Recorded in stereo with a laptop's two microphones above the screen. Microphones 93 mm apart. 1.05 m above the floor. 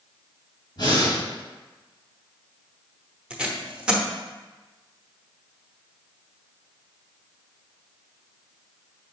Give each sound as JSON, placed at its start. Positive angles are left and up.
{"t": 0.8, "sound": "breathing", "side_deg": 50, "distance_m": 2.0}
{"t": 3.3, "sound": "tape being pulled", "side_deg": -10, "distance_m": 0.8}